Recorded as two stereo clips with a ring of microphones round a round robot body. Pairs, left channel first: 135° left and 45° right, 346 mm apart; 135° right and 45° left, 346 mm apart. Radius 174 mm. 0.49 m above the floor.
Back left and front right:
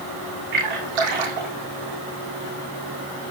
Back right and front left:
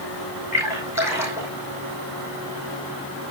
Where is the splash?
40° right, 5.5 m.